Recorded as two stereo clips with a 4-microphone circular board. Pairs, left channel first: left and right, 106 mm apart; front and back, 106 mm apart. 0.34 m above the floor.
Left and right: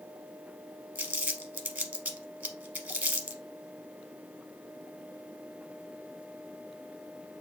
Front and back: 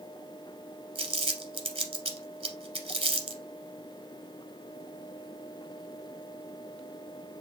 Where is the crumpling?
165° right, 0.8 m.